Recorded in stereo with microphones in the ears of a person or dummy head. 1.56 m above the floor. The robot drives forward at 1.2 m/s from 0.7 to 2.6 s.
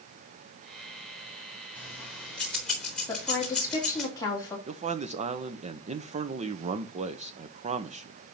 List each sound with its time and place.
1.8 s keys jangling: 10° left (ahead or behind), 2.0 m; by 4.1 s 5° left (ahead or behind), 3 m
3.1 s a woman speaking: 20° left (ahead or behind), 3 m
4.7 s a man speaking: 30° right (ahead or behind), 0.8 m